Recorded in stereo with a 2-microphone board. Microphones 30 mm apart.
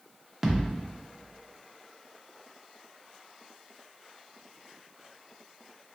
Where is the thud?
15° right (ahead or behind), 0.6 m.